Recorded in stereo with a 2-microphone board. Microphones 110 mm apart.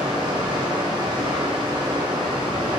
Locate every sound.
0.0 s running water: 40° right (ahead or behind), 1.0 m